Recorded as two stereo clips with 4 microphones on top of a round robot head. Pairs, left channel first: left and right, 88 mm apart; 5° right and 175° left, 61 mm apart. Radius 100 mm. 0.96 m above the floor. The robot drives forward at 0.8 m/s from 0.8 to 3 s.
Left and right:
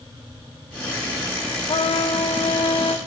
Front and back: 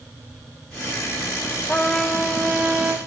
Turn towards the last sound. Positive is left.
turn(degrees=115)